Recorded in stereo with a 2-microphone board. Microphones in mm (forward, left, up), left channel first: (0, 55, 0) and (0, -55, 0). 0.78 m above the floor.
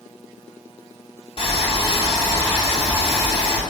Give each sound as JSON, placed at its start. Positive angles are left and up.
{"t": 1.4, "sound": "boiling", "side_deg": 50, "distance_m": 2.5}